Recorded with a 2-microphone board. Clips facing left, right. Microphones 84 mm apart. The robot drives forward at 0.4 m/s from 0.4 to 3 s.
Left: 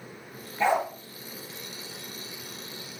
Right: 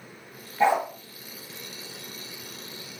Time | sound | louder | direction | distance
0.6 | a dog barking | right 2 dB | 25° right (ahead or behind) | 1.9 m